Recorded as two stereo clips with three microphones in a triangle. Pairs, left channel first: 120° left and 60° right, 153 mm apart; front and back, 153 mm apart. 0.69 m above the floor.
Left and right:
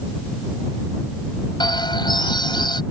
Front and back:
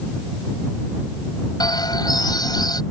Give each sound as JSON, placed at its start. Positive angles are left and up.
{"t": 1.6, "sound": "a bird", "azimuth_deg": 60}